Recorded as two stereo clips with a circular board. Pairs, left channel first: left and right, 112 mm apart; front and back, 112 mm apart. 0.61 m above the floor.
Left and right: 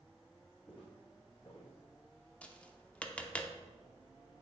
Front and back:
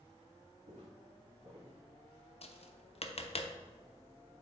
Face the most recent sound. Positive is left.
turn(degrees=10)